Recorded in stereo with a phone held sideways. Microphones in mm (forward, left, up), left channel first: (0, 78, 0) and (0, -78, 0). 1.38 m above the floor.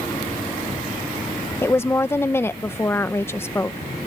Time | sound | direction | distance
1.6 | a woman speaking | 15° left (ahead or behind) | ?